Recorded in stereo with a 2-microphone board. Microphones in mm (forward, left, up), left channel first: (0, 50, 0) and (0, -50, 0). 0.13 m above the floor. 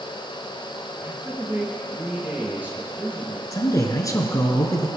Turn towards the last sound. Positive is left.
turn(degrees=35)  # may be behind; listen again after turning